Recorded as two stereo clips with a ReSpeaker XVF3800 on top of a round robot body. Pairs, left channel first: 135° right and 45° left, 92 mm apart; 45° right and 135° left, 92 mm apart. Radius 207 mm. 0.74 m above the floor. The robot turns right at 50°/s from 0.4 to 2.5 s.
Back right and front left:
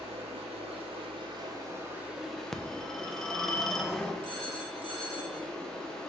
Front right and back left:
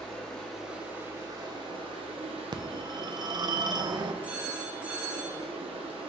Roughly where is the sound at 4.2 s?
Ahead left.